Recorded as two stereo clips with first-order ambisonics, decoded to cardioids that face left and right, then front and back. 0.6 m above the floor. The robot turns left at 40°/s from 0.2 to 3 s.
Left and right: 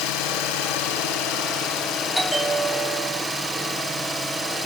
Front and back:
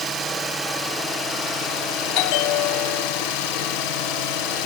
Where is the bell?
Straight ahead, 1.3 m; by 3.2 s 35° right, 1.3 m.